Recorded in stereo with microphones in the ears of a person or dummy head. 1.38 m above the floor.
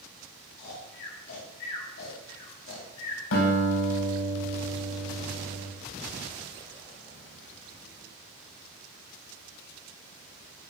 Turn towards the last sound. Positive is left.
turn(degrees=75)  # may be behind; listen again after turning